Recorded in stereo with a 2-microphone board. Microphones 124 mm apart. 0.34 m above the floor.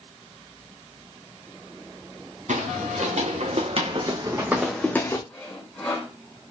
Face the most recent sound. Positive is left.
turn(degrees=10)  # may be behind; listen again after turning